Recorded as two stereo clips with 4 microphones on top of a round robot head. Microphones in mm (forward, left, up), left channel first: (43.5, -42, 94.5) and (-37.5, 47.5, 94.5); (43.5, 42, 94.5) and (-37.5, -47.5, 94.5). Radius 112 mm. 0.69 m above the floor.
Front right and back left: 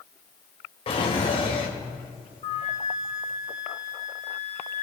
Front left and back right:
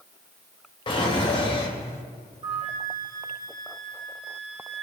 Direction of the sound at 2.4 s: 85° right.